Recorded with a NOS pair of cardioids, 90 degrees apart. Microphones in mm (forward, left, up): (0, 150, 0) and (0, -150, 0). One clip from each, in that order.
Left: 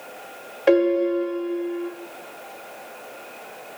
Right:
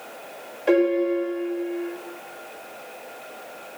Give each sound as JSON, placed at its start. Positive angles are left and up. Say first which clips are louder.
{"t": 0.7, "sound": "a piano", "louder": "left 2 dB", "azimuth_deg": 40, "distance_m": 1.4}